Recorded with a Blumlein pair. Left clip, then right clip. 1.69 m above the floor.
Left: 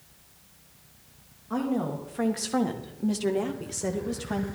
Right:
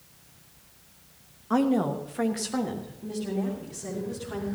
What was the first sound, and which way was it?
A woman speaking, 25° right.